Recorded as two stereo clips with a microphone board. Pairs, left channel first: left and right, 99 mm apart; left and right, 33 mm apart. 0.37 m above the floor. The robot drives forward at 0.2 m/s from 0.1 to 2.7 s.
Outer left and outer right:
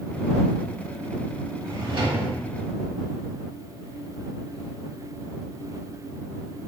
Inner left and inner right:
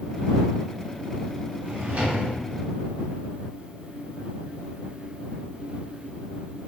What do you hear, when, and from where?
1.6 s a drawer: 55° right (ahead or behind), 1.6 m